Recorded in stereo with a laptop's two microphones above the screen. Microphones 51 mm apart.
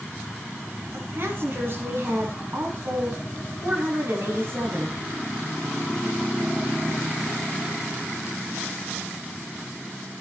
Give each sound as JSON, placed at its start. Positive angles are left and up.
{"t": 0.9, "sound": "a woman speaking", "side_deg": -50, "distance_m": 9.5}